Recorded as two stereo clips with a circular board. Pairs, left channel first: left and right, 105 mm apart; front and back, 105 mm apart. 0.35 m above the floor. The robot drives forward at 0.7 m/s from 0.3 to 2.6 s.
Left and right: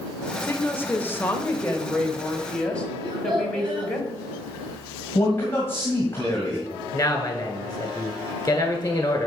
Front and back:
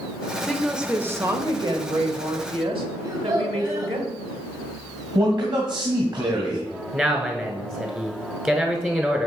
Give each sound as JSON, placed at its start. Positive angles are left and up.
{"t": 0.4, "sound": "a woman speaking", "azimuth_deg": 65, "distance_m": 0.8}
{"t": 3.0, "sound": "a child speaking", "azimuth_deg": -125, "distance_m": 1.4}
{"t": 5.2, "sound": "a man speaking", "azimuth_deg": 150, "distance_m": 1.6}
{"t": 6.9, "sound": "a man speaking", "azimuth_deg": 115, "distance_m": 1.2}